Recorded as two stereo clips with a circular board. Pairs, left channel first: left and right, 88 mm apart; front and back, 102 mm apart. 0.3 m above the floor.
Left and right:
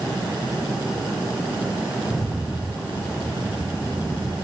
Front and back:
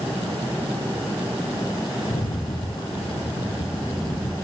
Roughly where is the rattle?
Ahead.